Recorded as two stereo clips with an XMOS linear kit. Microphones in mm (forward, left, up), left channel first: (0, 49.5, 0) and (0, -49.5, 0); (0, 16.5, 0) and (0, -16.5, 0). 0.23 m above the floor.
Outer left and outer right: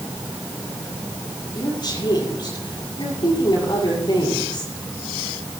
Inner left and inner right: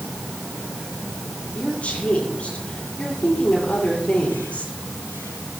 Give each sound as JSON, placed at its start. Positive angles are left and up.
{"t": 1.6, "sound": "a woman speaking", "side_deg": 50, "distance_m": 7.0}